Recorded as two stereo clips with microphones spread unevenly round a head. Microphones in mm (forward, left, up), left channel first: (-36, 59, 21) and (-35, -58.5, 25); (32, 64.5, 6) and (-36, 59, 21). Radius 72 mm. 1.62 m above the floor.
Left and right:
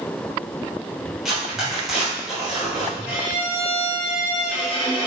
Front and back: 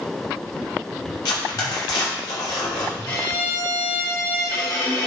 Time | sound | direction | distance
1.2 | tearing paper | 5° right | 3.5 m
3.0 | a violin | 35° left | 2.5 m